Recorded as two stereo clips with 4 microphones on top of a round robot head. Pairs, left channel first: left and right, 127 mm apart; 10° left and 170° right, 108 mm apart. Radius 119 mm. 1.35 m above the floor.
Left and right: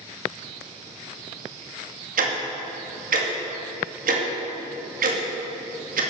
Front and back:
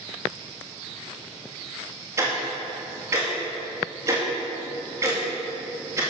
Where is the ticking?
100° right, 2 m.